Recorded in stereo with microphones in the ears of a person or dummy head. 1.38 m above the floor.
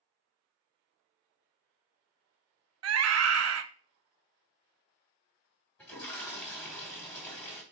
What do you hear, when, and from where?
2.8 s a scream: 70° right (ahead or behind), 0.5 m
5.8 s a toilet flushing: 15° left (ahead or behind), 1.9 m